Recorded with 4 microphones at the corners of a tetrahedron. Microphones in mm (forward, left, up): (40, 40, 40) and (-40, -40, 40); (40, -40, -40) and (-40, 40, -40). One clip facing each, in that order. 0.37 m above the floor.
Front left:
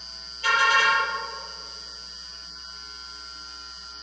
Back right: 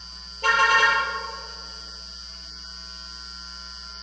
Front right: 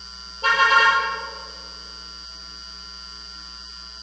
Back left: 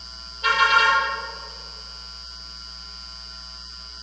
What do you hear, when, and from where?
0.4 s a car horn: 95° right, 5.5 m